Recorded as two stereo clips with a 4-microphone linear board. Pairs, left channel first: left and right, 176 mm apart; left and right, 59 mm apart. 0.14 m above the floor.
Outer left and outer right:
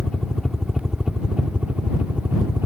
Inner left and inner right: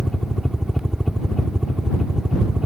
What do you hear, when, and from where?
0.0 s a helicopter: 5° left (ahead or behind); by 2.7 s 15° right (ahead or behind)